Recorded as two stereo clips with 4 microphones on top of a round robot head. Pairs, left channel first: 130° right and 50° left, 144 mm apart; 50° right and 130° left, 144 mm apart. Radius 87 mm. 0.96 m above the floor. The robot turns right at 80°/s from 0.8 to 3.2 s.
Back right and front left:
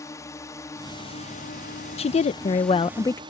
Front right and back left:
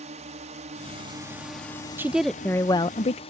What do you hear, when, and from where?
0.0 s a drone: 160° left; by 3.3 s 5° right
2.0 s a woman speaking: 160° right; by 3.2 s 60° right